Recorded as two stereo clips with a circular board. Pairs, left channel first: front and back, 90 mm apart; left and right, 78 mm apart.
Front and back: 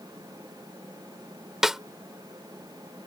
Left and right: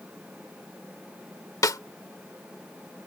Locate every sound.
1.6 s a snare drum: 95° left